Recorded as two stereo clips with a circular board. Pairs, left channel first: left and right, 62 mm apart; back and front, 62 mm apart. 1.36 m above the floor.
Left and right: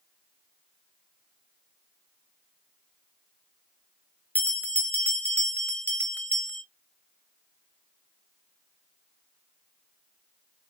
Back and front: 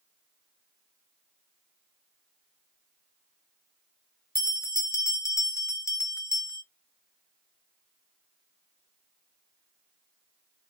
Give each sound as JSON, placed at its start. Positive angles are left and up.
{"t": 4.3, "sound": "a bell", "azimuth_deg": 150, "distance_m": 0.9}